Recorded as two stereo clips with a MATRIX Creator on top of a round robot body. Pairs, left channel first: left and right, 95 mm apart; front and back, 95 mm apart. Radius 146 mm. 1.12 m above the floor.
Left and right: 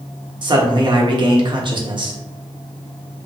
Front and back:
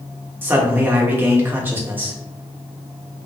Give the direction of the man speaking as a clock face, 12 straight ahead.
4 o'clock.